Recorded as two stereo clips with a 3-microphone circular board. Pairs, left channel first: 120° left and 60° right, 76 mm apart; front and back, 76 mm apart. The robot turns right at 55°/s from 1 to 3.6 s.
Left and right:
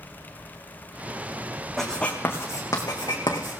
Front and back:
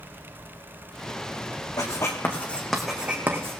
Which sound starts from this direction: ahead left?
Writing, at 1.8 s.